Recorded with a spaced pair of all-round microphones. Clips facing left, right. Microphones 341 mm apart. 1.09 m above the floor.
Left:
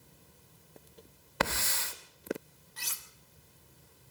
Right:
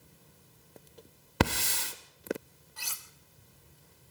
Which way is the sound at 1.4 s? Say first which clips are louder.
Right 6 dB; 45° right (ahead or behind).